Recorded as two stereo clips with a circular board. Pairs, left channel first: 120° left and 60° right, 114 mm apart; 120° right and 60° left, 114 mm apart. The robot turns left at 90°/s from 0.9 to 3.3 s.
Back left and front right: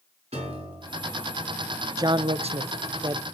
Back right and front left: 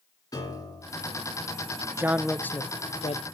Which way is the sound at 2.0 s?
5° right.